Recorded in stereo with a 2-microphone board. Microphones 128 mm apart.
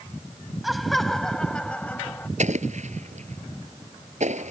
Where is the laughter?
Centre (ahead or behind); by 2.3 s 15° left (ahead or behind).